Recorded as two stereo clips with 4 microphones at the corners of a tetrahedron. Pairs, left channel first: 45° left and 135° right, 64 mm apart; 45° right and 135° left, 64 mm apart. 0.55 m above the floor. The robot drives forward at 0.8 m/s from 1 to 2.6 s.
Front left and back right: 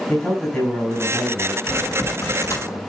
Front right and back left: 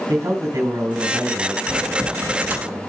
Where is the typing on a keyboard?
65° left, 4 m; by 2.8 s 80° left, 3.5 m.